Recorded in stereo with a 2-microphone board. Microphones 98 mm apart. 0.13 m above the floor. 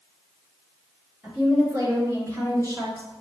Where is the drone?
I don't hear a drone.